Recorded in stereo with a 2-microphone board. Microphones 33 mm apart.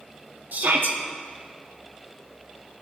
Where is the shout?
65° right (ahead or behind), 1.2 m.